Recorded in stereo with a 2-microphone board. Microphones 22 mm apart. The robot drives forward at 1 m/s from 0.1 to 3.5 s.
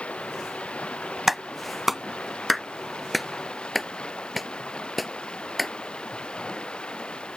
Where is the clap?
10° right (ahead or behind); by 5.7 s 5° right (ahead or behind).